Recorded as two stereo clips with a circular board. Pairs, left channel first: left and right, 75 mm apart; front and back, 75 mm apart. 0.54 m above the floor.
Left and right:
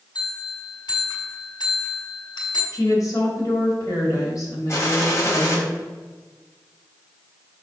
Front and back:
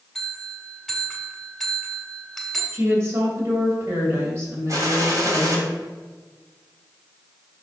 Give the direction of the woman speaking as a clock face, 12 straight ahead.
8 o'clock.